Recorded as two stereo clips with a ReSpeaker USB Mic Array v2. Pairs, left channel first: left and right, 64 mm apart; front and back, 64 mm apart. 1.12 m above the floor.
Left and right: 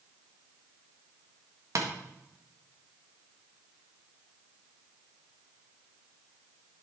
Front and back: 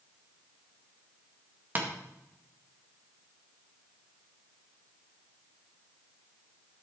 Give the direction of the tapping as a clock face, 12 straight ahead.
4 o'clock.